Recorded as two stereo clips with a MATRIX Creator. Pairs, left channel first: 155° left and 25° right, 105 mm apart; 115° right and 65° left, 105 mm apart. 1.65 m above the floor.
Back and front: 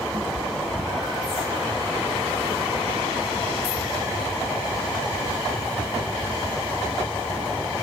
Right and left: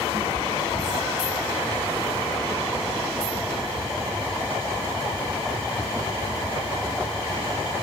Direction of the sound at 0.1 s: 30° left.